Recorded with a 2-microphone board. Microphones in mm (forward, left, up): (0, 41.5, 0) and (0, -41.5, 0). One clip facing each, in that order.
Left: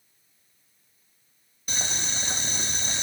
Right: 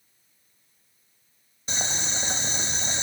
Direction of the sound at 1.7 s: 25° right (ahead or behind).